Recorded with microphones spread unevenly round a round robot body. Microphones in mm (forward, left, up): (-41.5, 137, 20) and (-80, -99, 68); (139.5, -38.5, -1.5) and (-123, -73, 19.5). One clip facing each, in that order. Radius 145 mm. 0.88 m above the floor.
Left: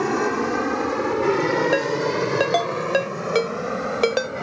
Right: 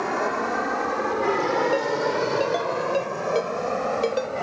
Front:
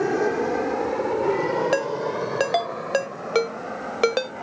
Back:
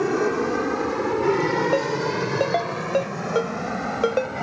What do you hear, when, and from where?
0.0 s an aircraft: 105° left; by 4.4 s 145° left
1.7 s a ringtone: 55° left